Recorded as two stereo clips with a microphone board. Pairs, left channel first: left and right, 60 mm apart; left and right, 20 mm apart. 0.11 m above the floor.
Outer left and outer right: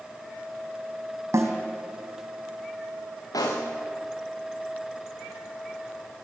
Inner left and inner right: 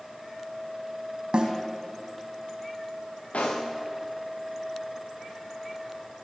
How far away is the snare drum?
About 4 m.